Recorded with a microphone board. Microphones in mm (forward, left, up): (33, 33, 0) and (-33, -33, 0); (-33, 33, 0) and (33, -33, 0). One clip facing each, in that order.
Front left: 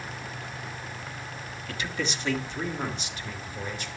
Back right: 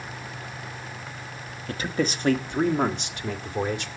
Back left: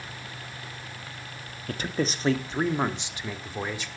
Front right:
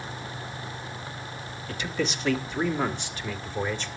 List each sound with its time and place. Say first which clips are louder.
1.7 s a man speaking: back right 6 dB, back left 1 dB; 175° left, 1.3 m; by 3.9 s 145° right, 2.0 m